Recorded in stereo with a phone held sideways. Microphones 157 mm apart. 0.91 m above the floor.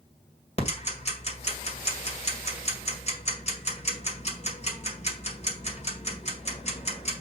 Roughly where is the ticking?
Left.